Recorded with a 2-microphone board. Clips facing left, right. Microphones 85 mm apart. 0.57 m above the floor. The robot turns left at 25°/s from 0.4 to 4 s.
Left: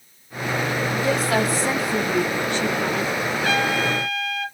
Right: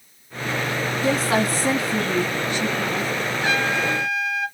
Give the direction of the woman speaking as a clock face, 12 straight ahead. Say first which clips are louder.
Right 1 dB; 4 o'clock.